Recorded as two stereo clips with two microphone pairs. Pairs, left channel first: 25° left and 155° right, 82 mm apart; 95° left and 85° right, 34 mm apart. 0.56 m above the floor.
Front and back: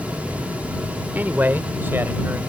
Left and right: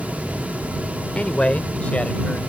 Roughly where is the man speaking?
Behind left.